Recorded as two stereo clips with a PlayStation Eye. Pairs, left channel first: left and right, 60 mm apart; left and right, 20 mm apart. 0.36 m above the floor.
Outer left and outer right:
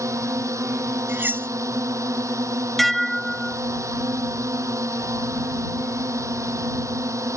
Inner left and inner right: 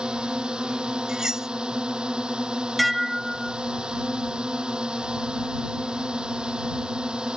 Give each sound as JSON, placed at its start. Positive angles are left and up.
{"t": 0.0, "sound": "a drone", "side_deg": -55}
{"t": 1.1, "sound": "cutlery clinking", "side_deg": -35}
{"t": 2.8, "sound": "dishes clattering", "side_deg": 0}